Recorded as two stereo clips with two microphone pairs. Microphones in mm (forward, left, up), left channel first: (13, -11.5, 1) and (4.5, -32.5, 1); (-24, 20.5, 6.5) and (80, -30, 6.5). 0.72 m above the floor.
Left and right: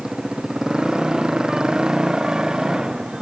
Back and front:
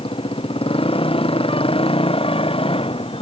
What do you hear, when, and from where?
0.0 s a motorcycle: 170° right